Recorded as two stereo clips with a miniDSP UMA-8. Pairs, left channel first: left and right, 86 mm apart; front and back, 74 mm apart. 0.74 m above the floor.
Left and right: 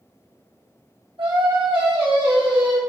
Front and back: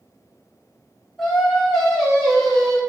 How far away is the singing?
About 0.9 m.